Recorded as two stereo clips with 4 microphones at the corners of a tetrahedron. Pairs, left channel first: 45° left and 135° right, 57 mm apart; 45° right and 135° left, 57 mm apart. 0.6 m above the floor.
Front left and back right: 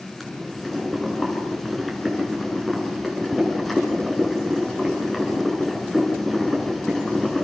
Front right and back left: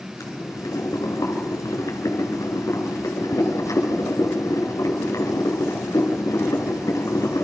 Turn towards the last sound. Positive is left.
turn(degrees=-45)